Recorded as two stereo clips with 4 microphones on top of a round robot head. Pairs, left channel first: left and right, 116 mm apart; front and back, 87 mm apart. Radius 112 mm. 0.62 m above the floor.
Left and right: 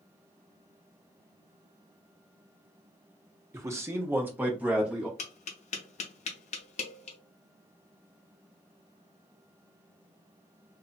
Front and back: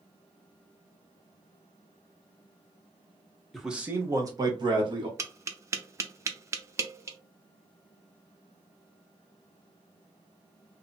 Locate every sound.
3.5 s a man speaking: 85° right, 0.7 m; by 5.1 s 170° right, 1.5 m
5.2 s tapping: 120° left, 0.5 m